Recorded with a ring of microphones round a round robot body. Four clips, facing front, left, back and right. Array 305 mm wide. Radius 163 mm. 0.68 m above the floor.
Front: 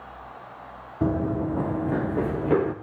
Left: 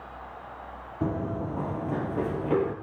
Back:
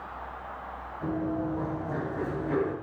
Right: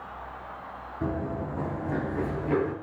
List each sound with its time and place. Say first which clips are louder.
1.0 s running footsteps: left 1 dB, front 5 dB; 15° left, 1.9 m; by 2.7 s 10° left, 3.5 m